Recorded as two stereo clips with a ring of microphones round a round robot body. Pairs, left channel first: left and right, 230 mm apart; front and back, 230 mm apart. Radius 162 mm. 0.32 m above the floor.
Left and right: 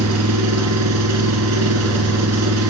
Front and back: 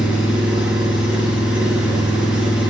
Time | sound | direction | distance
0.0 | an engine running | 90° right | 3 m